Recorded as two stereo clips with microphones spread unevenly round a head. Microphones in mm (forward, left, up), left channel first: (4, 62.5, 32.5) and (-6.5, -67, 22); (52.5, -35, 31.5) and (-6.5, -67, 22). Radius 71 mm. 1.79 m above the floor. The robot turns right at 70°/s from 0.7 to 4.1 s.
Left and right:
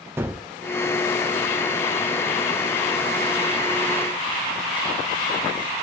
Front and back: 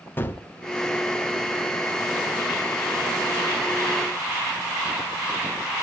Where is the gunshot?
20° right, 1.4 m.